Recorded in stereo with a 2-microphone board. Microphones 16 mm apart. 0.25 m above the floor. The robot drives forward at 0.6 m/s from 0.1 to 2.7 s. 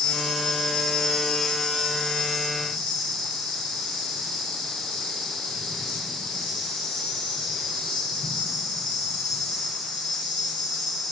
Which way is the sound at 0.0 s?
55° left (ahead or behind).